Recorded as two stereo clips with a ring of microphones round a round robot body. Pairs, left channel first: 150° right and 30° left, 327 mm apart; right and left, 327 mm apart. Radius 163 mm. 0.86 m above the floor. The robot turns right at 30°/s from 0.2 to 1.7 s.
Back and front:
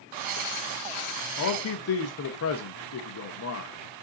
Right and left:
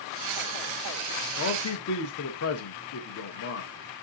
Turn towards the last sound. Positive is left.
turn(degrees=-120)